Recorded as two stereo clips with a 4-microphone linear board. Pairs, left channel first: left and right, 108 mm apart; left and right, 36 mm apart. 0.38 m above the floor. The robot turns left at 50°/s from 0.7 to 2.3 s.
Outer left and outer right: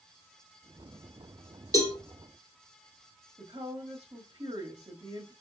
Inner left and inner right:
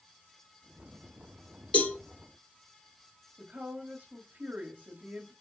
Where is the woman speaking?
50° right (ahead or behind), 1.7 m.